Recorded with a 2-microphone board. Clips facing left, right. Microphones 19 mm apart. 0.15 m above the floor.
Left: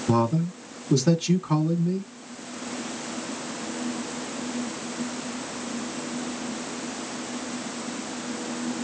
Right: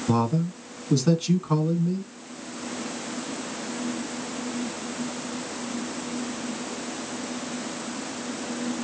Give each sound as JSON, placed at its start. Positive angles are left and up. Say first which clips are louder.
{"t": 0.1, "sound": "a man speaking", "louder": "left 1 dB", "side_deg": -5, "distance_m": 1.4}